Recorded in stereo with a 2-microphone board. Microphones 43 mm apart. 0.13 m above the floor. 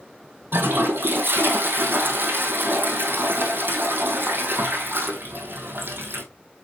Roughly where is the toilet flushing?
Right.